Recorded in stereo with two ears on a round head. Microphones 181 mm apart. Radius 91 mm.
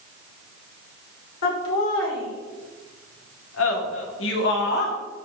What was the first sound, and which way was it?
Laughter, 75° left (ahead or behind).